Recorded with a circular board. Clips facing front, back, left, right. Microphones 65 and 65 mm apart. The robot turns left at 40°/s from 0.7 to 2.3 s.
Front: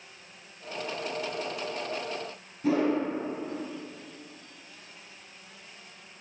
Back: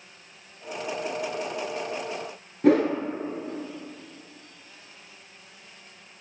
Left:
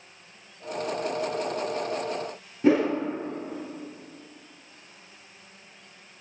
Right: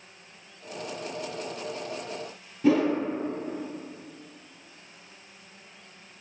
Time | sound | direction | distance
2.6 | a whoosh | 145° left | 1.1 m